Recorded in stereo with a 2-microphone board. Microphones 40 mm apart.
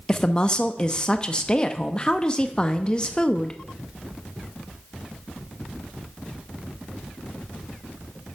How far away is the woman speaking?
About 0.7 m.